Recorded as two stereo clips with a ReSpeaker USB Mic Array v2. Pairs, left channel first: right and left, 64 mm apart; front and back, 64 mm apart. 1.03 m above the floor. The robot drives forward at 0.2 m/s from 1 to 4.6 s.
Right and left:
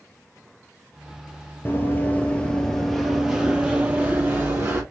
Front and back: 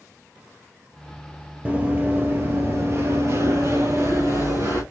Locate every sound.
1.6 s running footsteps: 125° right, 1.3 m; by 4.8 s 140° left, 2.0 m